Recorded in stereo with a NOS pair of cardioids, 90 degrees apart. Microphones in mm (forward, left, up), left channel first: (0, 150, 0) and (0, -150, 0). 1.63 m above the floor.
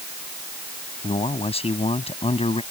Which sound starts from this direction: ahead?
A man speaking, at 1.0 s.